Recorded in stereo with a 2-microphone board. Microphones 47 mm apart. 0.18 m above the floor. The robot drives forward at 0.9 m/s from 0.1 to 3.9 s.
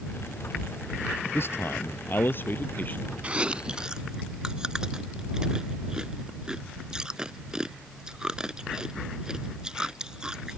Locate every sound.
1.3 s a man speaking: 55° left (ahead or behind); by 3.1 s 40° left (ahead or behind)
3.2 s chewing: 30° right (ahead or behind); by 10.6 s 15° right (ahead or behind)